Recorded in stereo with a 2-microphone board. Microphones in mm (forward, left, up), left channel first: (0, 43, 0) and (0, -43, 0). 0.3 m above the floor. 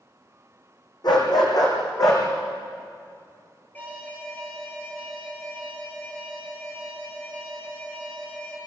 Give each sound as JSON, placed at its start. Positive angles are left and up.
{"t": 1.0, "sound": "a dog barking", "side_deg": 55, "distance_m": 4.0}
{"t": 3.7, "sound": "an alarm", "side_deg": 20, "distance_m": 5.5}